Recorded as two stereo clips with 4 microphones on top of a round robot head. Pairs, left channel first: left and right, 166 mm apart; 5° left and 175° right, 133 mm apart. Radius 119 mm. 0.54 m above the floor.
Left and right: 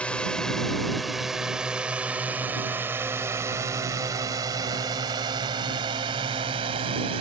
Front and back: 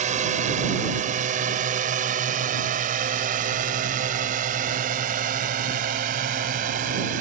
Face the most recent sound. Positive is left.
turn(degrees=-150)